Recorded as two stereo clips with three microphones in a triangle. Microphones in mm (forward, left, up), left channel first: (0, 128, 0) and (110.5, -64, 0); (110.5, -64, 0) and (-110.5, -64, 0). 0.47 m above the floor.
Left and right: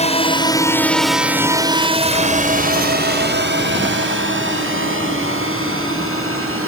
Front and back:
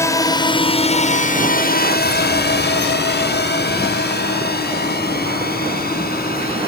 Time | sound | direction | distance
0.0 | a drone | 70° left | ?